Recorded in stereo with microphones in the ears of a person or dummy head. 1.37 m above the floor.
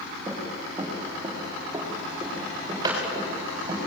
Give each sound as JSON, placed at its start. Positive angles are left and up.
{"t": 0.3, "sound": "running footsteps", "side_deg": -20, "distance_m": 9.5}